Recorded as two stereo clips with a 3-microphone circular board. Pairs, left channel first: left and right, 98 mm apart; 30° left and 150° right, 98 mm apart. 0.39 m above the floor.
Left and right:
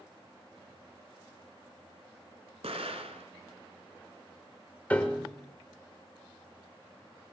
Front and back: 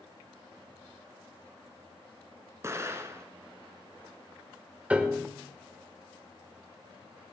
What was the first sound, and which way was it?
An explosion, 85° right.